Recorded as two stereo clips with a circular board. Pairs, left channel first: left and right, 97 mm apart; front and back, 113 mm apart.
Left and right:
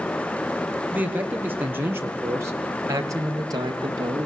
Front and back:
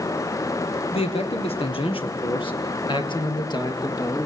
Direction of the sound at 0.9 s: 20° right.